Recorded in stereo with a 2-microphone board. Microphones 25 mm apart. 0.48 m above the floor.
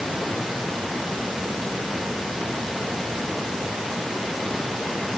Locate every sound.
Only background noise.